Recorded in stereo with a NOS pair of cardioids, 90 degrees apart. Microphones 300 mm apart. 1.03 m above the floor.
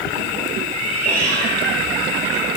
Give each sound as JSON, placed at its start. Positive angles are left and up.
{"t": 0.7, "sound": "a cat meowing", "azimuth_deg": -70, "distance_m": 5.0}